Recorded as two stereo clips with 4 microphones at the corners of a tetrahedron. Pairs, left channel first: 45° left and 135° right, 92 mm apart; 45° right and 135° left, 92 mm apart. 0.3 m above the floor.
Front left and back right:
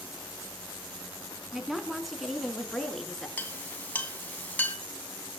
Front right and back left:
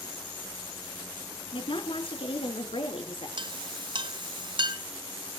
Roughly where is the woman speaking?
Ahead right.